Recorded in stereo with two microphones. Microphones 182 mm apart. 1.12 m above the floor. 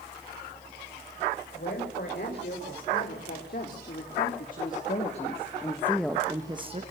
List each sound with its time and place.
1.5 s a woman speaking: 65° left (ahead or behind), 5.5 m; by 6.8 s 35° right (ahead or behind), 1.3 m